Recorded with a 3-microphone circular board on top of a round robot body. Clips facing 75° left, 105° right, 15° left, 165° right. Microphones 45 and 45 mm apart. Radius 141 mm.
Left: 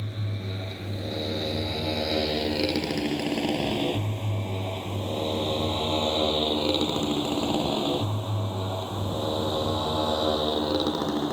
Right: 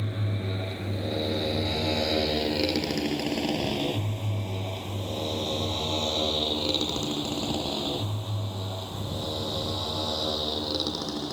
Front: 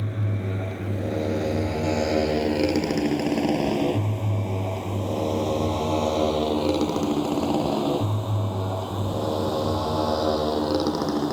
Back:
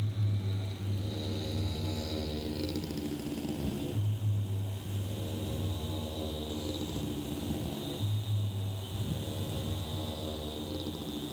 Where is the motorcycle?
30° right; by 11.3 s 15° left.